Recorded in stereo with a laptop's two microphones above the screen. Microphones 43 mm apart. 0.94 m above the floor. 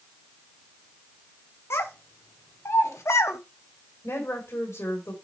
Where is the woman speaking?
75° left (ahead or behind), 3 m.